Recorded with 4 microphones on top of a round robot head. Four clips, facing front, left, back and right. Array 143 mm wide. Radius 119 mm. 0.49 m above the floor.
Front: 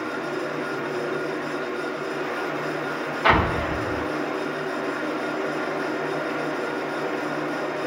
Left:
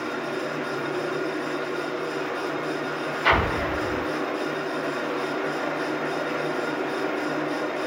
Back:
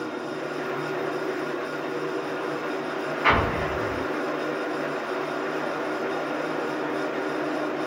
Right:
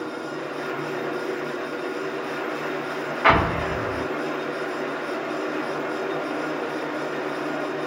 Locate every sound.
3.2 s an explosion: 60° right, 0.6 m